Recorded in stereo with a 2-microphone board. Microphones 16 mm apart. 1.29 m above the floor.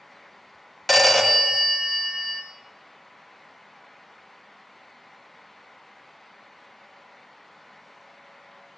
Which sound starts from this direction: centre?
A phone ringing, at 0.9 s.